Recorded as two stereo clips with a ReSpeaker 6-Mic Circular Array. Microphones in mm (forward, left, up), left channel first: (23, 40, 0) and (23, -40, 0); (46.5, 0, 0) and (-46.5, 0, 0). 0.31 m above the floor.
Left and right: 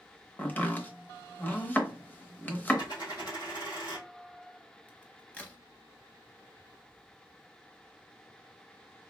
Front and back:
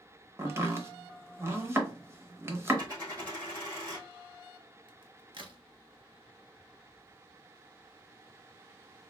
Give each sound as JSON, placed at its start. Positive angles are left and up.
{"t": 0.4, "sound": "chopping", "azimuth_deg": 145, "distance_m": 0.7}
{"t": 2.8, "sound": "a dropped coin", "azimuth_deg": 130, "distance_m": 2.0}
{"t": 4.9, "sound": "a crack", "azimuth_deg": 160, "distance_m": 0.7}